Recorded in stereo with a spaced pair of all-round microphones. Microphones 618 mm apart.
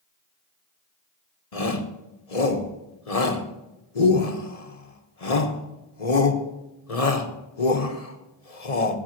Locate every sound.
1.5 s a shout: 70° left (ahead or behind), 1.4 m